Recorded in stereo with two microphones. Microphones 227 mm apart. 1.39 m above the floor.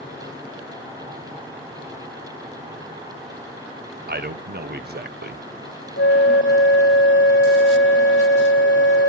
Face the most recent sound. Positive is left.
turn(degrees=60)  # may be behind; listen again after turning